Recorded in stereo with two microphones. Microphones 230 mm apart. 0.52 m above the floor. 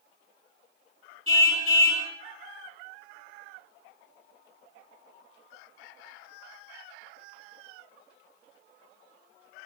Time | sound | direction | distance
1.3 | a car horn | 70° right (ahead or behind) | 3 m